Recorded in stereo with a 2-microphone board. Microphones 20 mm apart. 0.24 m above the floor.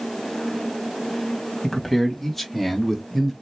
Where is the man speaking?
10° left (ahead or behind), 1.8 m; by 3.3 s 5° left (ahead or behind), 1.6 m.